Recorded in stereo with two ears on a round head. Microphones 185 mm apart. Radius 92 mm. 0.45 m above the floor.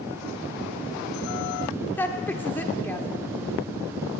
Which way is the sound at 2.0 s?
10° left (ahead or behind).